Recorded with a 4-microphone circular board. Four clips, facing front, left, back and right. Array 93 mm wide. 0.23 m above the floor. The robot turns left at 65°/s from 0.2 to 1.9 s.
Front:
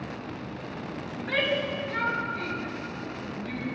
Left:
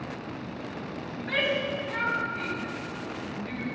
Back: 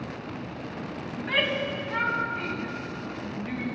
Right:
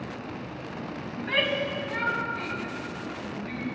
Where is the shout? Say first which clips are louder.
Even, front 1 dB; 135° right, 2.0 m; by 3.6 s 175° left, 2.0 m.